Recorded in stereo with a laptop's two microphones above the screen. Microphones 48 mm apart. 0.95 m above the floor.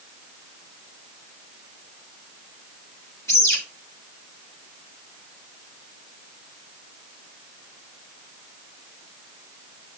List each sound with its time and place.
3.3 s a bird: 70° left (ahead or behind), 3.5 m